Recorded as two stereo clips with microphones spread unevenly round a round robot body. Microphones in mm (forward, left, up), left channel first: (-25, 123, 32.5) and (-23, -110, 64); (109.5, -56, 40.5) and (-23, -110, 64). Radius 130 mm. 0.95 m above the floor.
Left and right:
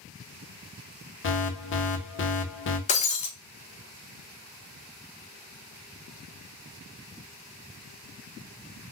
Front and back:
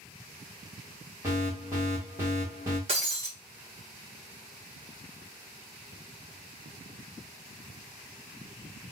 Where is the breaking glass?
155° left, 0.6 m.